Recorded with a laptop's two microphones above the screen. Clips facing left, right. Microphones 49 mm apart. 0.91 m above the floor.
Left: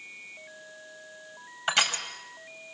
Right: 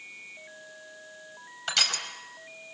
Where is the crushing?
20° left (ahead or behind), 5 m.